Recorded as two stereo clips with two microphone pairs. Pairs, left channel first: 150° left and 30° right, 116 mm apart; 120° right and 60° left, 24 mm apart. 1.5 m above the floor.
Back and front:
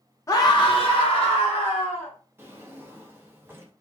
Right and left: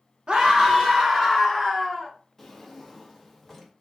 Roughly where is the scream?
Left.